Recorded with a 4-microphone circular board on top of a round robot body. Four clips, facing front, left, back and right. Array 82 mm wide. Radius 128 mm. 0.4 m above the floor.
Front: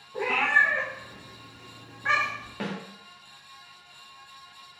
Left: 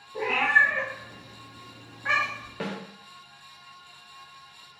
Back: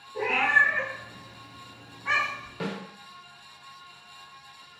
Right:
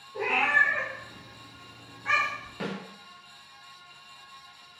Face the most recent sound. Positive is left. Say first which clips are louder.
# left 1 dB, back 1 dB
turn(degrees=30)